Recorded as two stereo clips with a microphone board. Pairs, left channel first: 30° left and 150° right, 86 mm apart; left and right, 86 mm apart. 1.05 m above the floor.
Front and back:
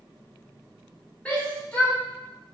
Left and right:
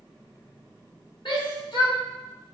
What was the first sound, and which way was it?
A shout, 105° left.